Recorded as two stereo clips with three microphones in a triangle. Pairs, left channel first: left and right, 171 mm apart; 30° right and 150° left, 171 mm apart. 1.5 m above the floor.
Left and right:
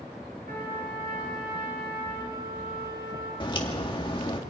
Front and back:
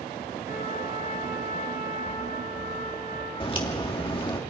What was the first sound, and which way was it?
A trumpet, 65° right.